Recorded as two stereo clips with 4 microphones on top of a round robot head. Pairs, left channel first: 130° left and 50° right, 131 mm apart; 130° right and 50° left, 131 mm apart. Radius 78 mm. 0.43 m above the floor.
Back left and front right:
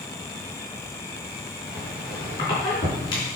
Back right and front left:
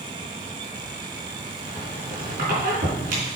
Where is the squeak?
75° left, 4.5 m.